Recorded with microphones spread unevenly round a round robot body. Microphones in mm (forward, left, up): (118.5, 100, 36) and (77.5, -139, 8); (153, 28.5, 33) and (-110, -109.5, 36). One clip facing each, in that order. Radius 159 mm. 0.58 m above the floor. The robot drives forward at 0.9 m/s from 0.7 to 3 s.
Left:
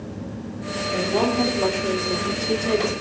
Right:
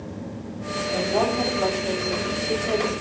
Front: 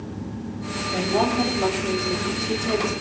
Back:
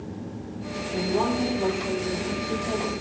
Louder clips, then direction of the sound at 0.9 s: Left 2 dB, front 2 dB; 20° left.